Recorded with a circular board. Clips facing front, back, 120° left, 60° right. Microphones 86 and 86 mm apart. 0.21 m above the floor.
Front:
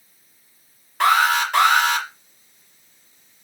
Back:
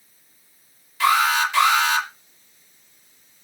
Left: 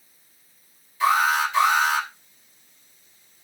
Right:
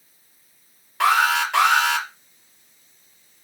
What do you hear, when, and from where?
1.0 s an alarm: 35° right, 3.5 m